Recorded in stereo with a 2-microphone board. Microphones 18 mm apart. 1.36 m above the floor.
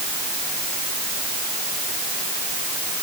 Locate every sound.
Only background noise.